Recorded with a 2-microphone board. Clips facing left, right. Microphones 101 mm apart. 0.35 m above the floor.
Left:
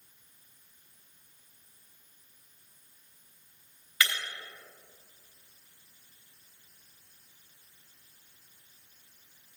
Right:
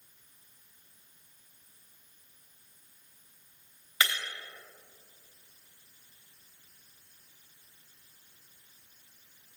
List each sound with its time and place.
4.0 s breaking glass: 25° right (ahead or behind), 3 m